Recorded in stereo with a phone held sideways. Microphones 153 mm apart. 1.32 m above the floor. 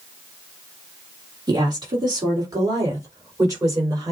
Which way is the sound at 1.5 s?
30° right (ahead or behind).